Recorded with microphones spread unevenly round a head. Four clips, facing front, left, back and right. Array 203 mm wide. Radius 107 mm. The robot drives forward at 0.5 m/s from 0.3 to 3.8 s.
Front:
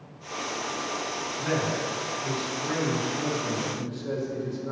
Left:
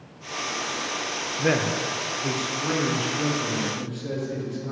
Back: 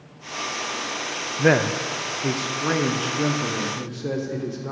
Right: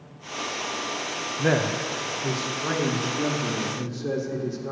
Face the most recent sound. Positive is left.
turn(degrees=180)